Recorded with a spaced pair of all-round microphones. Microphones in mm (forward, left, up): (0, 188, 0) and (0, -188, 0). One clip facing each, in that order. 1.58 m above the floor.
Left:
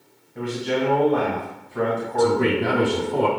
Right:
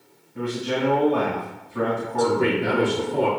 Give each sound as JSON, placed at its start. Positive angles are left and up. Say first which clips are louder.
{"t": 0.3, "sound": "a man speaking", "louder": "left 1 dB", "side_deg": -10, "distance_m": 2.0}
{"t": 2.2, "sound": "a man speaking", "louder": "left 2 dB", "side_deg": 70, "distance_m": 0.9}